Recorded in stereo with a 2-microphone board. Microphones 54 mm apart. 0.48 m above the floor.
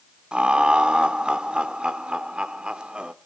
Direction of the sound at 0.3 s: 20° right (ahead or behind).